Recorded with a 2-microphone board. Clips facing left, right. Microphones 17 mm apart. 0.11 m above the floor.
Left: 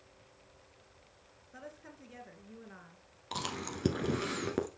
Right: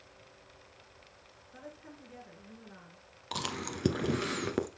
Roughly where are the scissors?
I don't hear scissors.